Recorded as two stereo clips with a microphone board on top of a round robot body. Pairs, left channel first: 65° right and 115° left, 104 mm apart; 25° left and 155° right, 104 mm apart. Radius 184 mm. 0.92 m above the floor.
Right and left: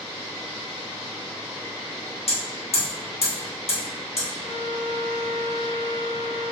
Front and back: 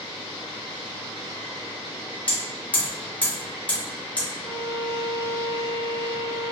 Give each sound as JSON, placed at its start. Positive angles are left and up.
{"t": 2.3, "sound": "hammering", "azimuth_deg": -55, "distance_m": 1.5}
{"t": 4.4, "sound": "a violin", "azimuth_deg": -110, "distance_m": 0.8}